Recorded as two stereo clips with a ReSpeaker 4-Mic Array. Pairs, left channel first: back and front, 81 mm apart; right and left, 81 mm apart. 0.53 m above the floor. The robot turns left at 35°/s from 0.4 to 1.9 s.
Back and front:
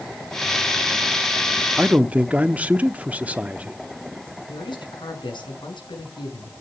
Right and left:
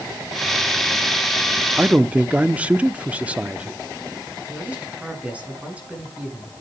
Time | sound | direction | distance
1.8 | a man speaking | 50° left | 0.7 m
4.5 | a man speaking | 165° left | 6.5 m